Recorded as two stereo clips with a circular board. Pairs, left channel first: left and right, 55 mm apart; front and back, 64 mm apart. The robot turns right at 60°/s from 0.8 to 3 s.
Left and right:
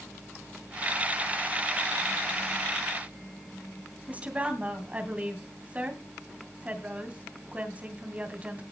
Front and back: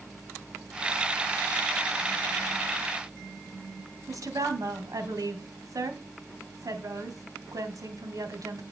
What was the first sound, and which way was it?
A woman speaking, 155° right.